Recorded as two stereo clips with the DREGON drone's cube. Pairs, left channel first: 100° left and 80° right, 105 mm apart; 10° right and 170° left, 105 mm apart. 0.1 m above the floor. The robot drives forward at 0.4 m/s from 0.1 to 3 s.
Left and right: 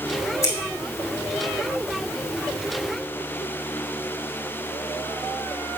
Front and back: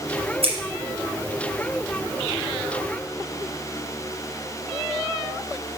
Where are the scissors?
160° left, 3.5 m.